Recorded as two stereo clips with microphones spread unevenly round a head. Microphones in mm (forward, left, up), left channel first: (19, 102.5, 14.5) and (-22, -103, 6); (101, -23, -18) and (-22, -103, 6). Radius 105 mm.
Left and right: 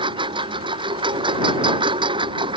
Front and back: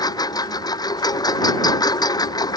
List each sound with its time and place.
0.0 s a lawn mower: 30° right